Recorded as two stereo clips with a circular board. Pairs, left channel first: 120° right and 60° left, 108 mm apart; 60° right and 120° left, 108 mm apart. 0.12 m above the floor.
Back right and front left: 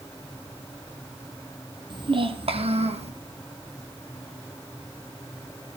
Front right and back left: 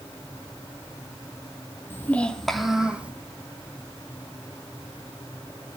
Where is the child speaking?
10° left, 2 m; by 3.1 s 45° left, 3 m.